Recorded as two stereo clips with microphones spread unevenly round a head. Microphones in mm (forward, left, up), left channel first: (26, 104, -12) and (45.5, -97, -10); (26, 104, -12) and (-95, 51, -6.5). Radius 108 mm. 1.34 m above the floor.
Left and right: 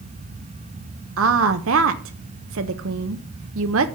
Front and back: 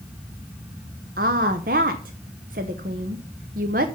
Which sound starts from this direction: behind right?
A woman speaking, at 1.2 s.